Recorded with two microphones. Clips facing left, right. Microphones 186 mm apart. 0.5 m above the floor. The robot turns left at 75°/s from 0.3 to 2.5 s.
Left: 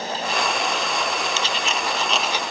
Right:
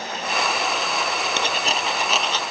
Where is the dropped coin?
120° right; by 2.4 s 165° left.